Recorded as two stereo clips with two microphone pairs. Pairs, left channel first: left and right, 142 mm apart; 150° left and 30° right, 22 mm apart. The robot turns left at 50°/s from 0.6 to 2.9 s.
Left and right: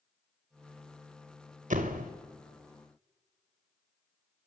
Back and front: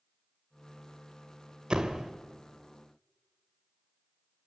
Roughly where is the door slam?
Right.